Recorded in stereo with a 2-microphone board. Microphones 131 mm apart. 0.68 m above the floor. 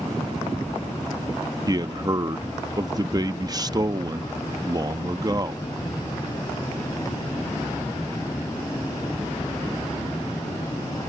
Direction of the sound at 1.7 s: 30° right (ahead or behind).